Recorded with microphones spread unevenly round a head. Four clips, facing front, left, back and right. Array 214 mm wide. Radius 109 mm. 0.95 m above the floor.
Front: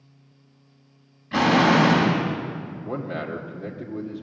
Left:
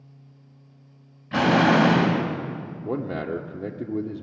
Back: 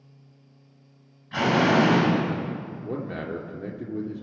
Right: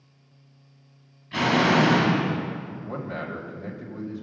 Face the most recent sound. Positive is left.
turn(degrees=100)